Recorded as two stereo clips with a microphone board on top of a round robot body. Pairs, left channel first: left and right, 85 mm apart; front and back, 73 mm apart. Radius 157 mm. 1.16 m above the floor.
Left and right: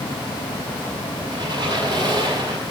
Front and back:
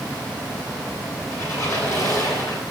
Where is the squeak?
50° right, 5.5 m.